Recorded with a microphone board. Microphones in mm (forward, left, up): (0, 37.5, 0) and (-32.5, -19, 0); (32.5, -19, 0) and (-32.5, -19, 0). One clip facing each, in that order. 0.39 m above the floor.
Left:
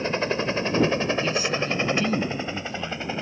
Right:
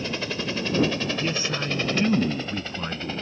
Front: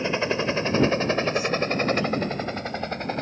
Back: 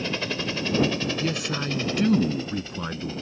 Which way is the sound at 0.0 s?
40° left.